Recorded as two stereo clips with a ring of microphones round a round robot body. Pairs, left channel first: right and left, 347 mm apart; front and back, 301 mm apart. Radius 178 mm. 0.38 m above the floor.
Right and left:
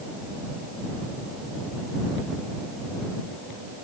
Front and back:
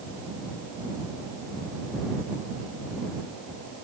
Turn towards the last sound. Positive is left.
No sound to turn to.